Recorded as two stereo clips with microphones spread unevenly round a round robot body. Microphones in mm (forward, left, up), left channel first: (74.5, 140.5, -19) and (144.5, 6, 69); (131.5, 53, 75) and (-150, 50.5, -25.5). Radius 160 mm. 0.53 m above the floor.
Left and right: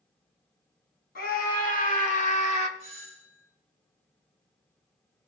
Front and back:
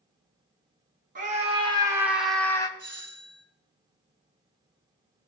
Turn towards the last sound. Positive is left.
turn(degrees=-135)